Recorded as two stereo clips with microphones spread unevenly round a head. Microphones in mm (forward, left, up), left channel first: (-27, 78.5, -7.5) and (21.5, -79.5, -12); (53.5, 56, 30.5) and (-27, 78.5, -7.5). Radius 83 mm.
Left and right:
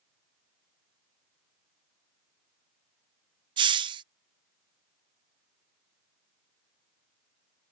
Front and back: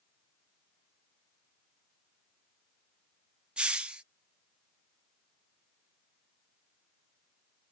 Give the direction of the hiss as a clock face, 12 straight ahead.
4 o'clock.